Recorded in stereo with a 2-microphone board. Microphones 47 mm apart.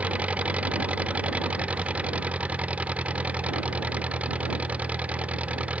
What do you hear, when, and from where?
0.0 s an engine running: 30° right (ahead or behind)